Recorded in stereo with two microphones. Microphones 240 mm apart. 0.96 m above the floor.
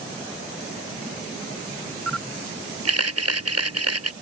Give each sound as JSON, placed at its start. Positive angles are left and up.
{"t": 2.1, "sound": "a camera shutter", "side_deg": -85}